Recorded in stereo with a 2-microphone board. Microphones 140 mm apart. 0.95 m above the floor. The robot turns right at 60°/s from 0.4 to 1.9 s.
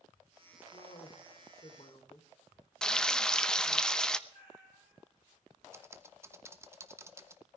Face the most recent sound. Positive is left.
turn(degrees=-20)  # may be behind; listen again after turning